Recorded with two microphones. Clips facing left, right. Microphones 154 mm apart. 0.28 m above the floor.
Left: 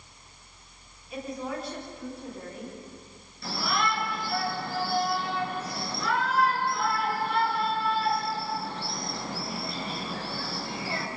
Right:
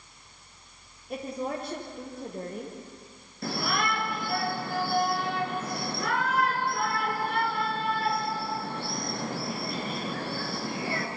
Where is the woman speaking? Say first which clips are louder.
Right 2 dB; 55° right (ahead or behind), 7.5 m; by 2.8 s 50° right (ahead or behind), 7 m.